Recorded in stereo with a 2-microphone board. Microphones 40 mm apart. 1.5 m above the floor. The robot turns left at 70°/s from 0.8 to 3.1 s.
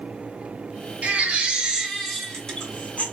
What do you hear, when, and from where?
1.0 s a baby crying: 105° right, 1.3 m; by 3.0 s 115° left, 1.3 m